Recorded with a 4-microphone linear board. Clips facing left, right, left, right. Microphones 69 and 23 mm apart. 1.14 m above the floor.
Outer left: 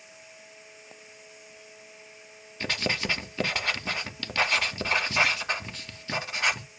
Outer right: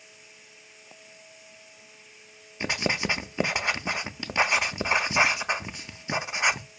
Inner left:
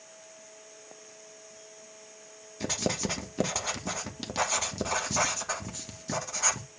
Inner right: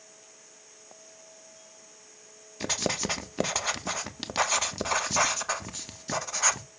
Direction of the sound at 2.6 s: 20° right (ahead or behind).